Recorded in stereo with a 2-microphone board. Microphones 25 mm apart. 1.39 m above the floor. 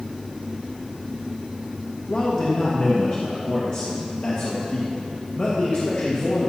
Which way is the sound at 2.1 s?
80° left.